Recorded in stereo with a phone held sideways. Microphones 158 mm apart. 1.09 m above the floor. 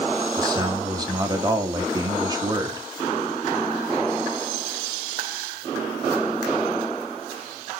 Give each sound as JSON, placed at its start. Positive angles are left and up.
{"t": 0.4, "sound": "a man speaking", "side_deg": -25, "distance_m": 1.7}